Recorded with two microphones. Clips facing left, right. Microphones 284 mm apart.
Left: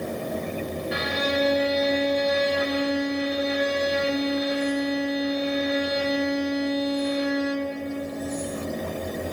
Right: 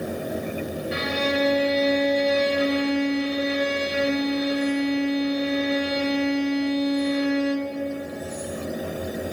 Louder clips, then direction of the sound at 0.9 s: Right 2 dB; 30° right (ahead or behind).